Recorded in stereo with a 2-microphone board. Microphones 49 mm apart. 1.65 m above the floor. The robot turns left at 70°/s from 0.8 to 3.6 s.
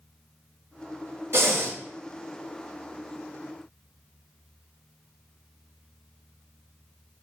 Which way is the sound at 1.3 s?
65° right (ahead or behind).